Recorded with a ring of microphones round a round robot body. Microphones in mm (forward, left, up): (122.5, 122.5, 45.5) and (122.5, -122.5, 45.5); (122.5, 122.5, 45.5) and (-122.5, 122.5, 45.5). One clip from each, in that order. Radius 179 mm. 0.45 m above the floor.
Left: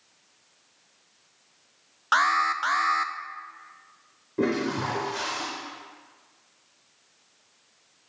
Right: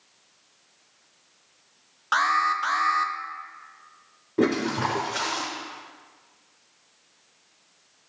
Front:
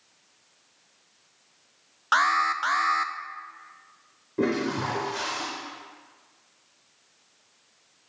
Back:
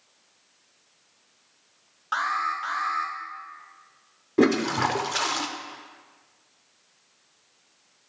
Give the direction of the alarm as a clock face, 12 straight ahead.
11 o'clock.